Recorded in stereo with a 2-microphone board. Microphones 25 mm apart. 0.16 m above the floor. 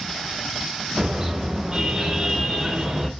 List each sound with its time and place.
1.0 s a car horn: 25° right (ahead or behind), 8 m